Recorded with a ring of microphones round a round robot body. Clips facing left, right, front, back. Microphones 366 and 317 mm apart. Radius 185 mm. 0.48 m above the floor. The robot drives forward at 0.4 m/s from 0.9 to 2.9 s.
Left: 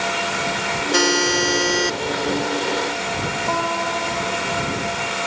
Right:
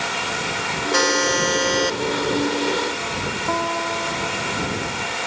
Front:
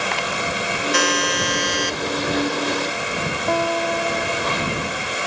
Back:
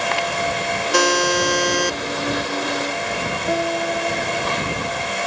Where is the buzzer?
140° left; by 2.0 s 145° left.